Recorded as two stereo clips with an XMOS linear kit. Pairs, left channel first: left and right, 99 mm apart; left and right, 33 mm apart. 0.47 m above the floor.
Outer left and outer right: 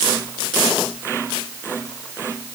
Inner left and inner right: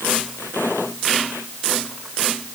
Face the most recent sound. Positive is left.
No sound to turn to.